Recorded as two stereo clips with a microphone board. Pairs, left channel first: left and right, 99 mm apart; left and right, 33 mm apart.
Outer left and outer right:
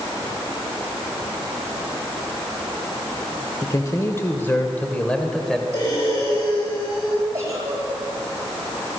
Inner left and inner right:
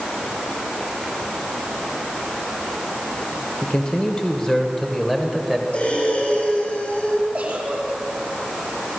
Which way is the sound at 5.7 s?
50° left (ahead or behind).